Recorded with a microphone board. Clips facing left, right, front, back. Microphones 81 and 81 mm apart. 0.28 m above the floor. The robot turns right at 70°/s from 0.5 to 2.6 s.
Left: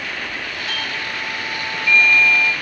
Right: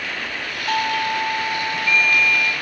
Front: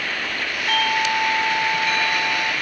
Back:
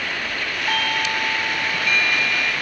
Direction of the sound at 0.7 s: 110° right.